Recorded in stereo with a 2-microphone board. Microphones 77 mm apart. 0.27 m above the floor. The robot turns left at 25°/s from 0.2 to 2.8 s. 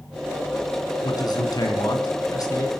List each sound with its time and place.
1.0 s a man speaking: 100° left, 2.5 m; by 2.7 s 60° left, 2.5 m